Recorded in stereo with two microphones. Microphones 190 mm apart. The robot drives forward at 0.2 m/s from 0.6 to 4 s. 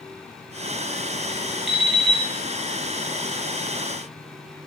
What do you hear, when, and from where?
1.7 s an alarm clock: centre (ahead or behind), 1.3 m